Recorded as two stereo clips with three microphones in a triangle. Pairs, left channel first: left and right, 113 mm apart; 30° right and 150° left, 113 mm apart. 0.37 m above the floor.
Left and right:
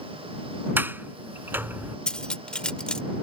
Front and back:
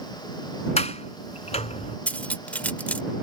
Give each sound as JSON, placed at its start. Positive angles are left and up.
{"t": 0.8, "sound": "a sliding door", "azimuth_deg": -15}
{"t": 2.1, "sound": "cutlery clinking", "azimuth_deg": 20}